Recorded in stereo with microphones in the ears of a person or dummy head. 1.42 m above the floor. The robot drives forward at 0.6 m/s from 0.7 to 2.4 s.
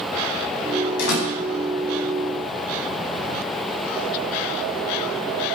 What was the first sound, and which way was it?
A door slam, 70° left (ahead or behind).